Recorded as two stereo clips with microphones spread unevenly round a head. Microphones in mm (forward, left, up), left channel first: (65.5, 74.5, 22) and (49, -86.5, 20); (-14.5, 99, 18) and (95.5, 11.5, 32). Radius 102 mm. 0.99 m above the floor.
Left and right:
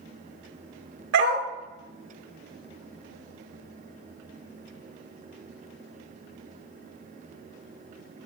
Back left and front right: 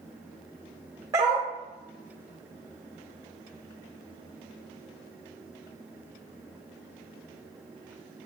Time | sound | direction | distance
1.1 | a dog barking | 110° right | 1.0 m